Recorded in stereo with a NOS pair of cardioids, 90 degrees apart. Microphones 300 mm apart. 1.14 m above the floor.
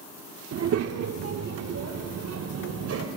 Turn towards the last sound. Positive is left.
turn(degrees=-55)